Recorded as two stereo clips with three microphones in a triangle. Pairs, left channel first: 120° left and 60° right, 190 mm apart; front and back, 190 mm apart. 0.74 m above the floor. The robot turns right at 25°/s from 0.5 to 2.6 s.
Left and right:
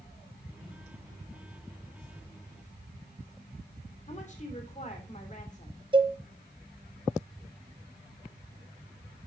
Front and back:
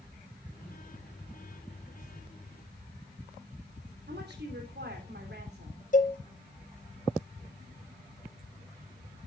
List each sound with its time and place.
4.1 s a woman speaking: 165° left, 3 m
5.9 s a cowbell: 10° right, 0.5 m